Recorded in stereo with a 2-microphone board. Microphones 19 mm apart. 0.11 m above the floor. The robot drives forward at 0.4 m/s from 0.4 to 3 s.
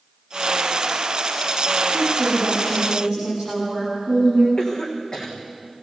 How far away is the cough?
About 6 m.